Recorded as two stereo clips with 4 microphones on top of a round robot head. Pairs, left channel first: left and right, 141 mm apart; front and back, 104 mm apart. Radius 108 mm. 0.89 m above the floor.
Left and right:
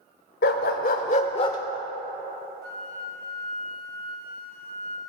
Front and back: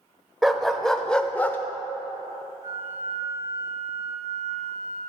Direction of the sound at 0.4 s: 90° left.